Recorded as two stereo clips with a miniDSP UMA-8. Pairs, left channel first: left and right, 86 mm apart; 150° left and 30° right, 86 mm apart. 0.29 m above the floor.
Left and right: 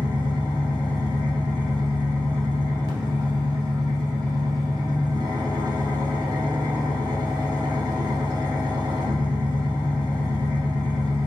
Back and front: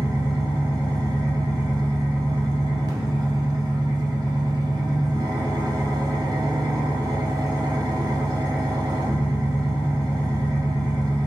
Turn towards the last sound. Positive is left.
turn(degrees=-65)